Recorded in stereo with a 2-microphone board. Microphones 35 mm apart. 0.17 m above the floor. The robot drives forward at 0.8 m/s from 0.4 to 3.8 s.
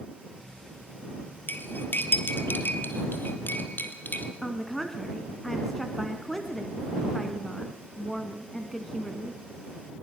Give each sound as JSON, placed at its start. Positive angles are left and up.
{"t": 1.5, "sound": "cutlery clinking", "side_deg": 65, "distance_m": 3.0}
{"t": 4.4, "sound": "a woman speaking", "side_deg": 10, "distance_m": 1.5}